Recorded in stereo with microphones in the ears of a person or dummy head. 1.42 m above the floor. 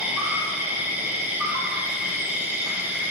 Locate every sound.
0.0 s an insect: 10° right (ahead or behind), 1.3 m